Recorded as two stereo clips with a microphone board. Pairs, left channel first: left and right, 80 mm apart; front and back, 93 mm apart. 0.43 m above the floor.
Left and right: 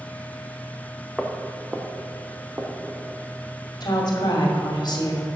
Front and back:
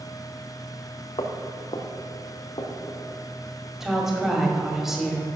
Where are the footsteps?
Straight ahead, 1.4 m; by 3.0 s 30° right, 2 m.